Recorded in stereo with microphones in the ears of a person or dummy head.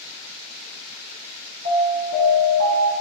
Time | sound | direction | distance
1.6 | an alarm | 50° right (ahead or behind) | 0.9 m